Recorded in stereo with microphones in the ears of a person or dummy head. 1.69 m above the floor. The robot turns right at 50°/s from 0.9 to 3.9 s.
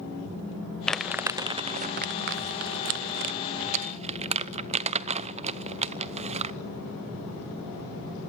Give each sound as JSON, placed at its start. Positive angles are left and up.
{"t": 0.9, "sound": "crumpling", "side_deg": 5, "distance_m": 0.7}